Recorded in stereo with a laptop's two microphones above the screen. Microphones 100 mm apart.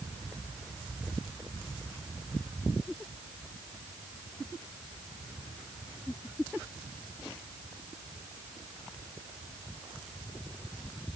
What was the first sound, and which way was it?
Only background noise.